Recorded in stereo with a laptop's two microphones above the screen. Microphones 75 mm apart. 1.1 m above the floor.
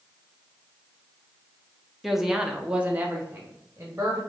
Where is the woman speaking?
Centre (ahead or behind), 0.7 m; by 4.2 s 30° right (ahead or behind), 0.9 m.